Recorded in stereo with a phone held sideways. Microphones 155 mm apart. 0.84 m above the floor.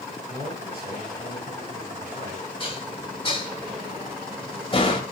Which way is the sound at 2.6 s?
35° left (ahead or behind).